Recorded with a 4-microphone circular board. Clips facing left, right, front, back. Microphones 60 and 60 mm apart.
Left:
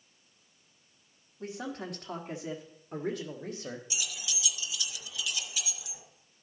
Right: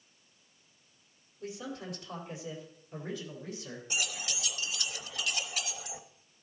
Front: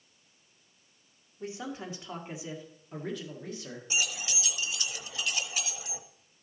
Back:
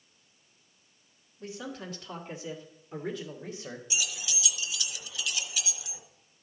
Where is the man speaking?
65° left, 1.8 m; by 3.8 s 110° left, 1.4 m.